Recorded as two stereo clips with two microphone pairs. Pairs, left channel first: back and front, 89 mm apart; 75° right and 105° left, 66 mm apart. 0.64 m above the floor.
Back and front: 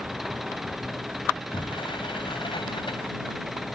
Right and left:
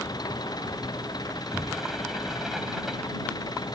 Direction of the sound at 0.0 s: 90° right.